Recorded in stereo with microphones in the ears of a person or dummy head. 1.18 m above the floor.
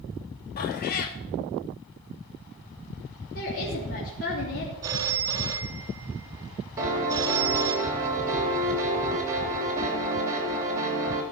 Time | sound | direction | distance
0.6 | a cat meowing | 45° left (ahead or behind) | 0.9 m
3.4 | a woman speaking | 45° left (ahead or behind) | 3 m
4.8 | a phone ringing | 25° right (ahead or behind) | 1.1 m
6.8 | a piano | 20° right (ahead or behind) | 3 m